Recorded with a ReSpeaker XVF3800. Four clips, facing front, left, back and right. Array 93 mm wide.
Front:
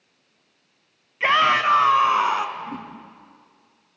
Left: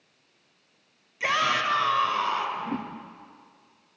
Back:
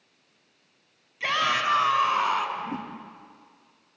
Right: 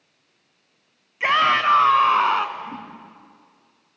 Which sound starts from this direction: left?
A whoosh, at 2.6 s.